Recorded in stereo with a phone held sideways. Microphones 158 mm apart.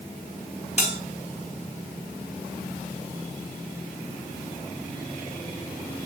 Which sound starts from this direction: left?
A bell, at 0.8 s.